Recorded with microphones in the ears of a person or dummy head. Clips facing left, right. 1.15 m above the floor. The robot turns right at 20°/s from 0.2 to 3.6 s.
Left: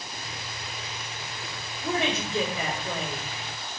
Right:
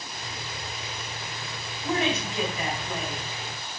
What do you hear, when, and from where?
1.8 s a woman speaking: 65° left (ahead or behind), 1.7 m; by 3.3 s 45° left (ahead or behind), 1.7 m